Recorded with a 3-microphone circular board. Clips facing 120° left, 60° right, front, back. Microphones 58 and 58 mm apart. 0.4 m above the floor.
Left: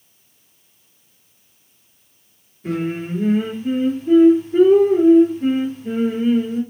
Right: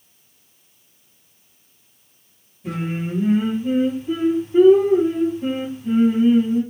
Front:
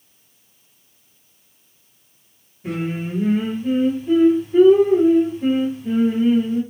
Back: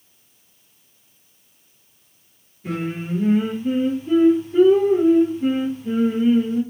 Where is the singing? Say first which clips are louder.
Left 3 dB, front 1 dB; 75° left, 3 m.